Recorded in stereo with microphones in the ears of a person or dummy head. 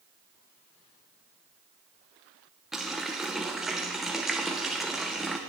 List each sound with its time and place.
2.7 s a running tap: centre (ahead or behind), 0.5 m